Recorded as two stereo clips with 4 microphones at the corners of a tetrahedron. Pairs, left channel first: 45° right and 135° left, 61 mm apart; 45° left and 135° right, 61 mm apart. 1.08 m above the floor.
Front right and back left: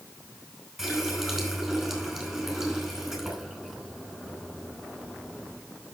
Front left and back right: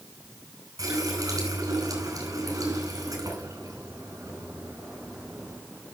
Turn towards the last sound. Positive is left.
turn(degrees=-135)